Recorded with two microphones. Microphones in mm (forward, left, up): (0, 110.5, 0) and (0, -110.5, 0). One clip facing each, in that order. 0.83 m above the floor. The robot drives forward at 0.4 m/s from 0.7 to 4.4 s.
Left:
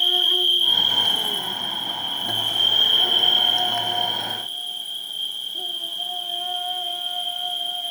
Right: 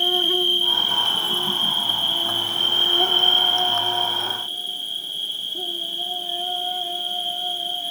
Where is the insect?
55° right (ahead or behind), 0.7 m; by 7.9 s 30° right (ahead or behind), 1.2 m.